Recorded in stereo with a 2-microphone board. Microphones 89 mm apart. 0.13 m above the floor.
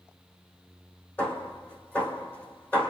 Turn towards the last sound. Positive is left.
turn(degrees=15)  # may be behind; listen again after turning